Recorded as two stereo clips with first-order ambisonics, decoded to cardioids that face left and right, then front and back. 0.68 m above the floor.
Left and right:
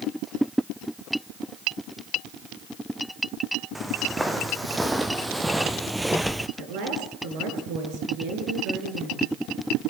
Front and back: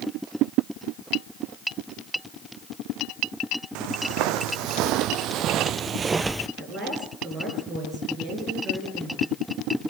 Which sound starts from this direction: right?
A woman speaking, at 6.6 s.